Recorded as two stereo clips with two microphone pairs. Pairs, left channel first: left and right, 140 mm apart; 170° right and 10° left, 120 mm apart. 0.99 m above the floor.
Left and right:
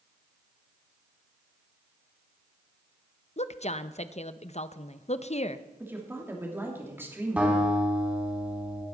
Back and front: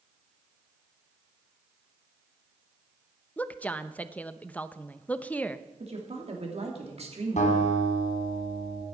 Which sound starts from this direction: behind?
A guitar, at 7.4 s.